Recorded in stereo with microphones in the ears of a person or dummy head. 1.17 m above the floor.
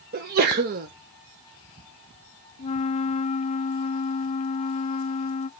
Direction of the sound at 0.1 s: 40° right (ahead or behind).